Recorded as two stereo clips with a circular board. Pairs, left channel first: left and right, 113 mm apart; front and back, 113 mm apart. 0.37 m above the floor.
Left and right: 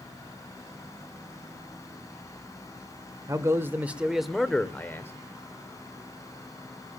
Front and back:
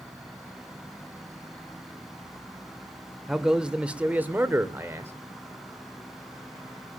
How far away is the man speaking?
About 1.4 m.